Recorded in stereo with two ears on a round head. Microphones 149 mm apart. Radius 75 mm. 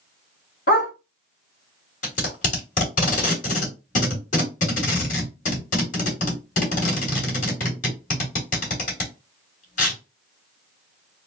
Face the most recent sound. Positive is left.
turn(degrees=50)  # may be behind; listen again after turning